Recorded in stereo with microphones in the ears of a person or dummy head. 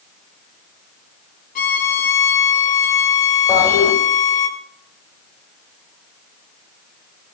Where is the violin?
45° left (ahead or behind), 2 m.